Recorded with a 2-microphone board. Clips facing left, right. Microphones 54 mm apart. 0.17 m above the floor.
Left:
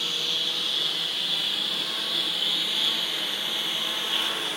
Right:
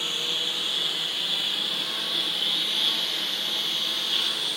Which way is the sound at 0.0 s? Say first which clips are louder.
Even; 10° right (ahead or behind).